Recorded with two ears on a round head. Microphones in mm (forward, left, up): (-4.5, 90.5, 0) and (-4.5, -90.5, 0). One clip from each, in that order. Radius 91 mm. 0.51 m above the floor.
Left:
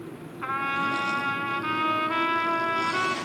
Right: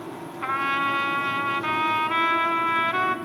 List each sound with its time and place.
0.4 s a trumpet: 15° right (ahead or behind), 0.9 m